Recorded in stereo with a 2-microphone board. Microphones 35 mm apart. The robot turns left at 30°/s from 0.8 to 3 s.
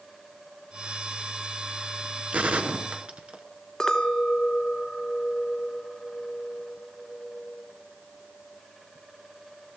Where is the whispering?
No whispering in this recording.